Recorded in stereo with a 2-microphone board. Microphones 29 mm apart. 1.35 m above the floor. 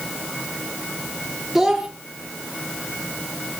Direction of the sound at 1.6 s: 10° right (ahead or behind).